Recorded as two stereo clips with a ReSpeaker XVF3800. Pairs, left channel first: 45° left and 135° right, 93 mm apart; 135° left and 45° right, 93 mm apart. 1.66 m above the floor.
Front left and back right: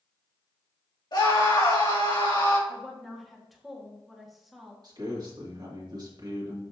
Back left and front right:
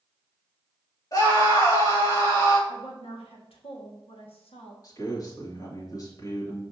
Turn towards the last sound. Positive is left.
turn(degrees=-175)